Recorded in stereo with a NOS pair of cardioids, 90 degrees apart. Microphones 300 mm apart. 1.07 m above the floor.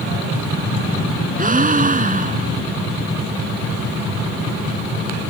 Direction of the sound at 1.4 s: 25° right.